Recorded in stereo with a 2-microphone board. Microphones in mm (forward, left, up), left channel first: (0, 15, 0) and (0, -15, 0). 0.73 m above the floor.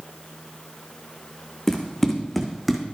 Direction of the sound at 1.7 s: 10° left (ahead or behind).